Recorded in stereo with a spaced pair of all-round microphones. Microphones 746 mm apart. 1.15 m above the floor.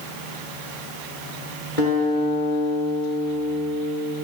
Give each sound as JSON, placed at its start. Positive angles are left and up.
{"t": 1.8, "sound": "a guitar", "side_deg": 85, "distance_m": 5.5}